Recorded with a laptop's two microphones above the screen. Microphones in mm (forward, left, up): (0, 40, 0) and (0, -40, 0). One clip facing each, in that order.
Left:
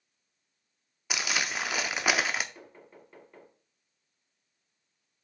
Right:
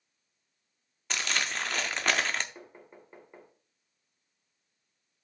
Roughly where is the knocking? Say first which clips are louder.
Right 1 dB; right.